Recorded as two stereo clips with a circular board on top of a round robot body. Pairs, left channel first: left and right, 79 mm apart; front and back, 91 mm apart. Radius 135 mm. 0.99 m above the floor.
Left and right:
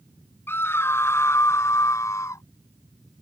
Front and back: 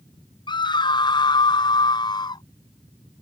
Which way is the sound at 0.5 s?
30° left.